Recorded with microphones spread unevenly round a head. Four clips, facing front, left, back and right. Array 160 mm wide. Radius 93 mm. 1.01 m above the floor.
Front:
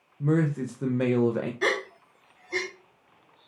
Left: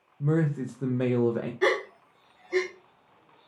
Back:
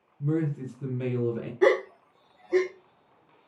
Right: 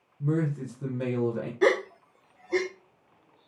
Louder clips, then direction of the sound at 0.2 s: Left 2 dB, front 3 dB; 30° left.